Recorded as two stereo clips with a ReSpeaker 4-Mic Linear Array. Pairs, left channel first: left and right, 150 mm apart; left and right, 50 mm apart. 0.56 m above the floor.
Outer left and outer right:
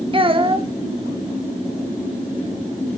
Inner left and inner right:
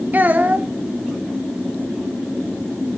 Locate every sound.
0.1 s a child speaking: 35° right (ahead or behind), 0.7 m